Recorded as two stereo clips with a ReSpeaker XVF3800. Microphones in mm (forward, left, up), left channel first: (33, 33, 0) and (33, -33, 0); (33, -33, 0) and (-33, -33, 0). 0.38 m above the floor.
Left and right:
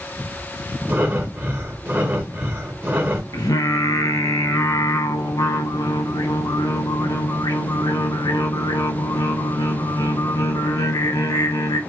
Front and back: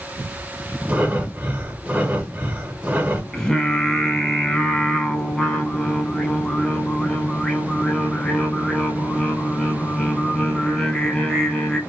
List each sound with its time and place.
0.9 s breathing: 120° right, 0.9 m
3.3 s singing: 80° left, 0.6 m